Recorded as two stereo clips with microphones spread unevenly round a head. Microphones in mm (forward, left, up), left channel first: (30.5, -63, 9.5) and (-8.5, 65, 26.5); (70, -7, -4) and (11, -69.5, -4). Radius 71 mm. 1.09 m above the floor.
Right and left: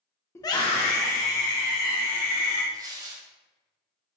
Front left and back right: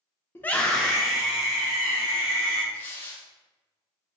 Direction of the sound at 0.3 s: 10° right.